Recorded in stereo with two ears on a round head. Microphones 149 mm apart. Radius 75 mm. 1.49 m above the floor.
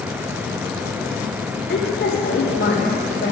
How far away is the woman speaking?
About 0.8 m.